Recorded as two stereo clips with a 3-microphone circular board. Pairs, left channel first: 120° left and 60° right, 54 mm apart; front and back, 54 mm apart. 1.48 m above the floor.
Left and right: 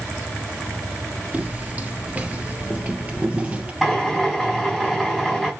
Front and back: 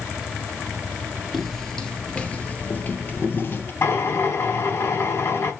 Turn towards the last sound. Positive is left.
turn(degrees=30)